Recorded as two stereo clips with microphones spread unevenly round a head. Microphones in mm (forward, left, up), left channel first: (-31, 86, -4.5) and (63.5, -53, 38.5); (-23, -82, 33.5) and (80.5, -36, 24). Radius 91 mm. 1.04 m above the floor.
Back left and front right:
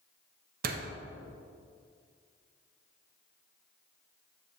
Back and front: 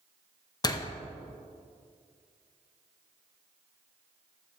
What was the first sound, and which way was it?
A door slam, 100° right.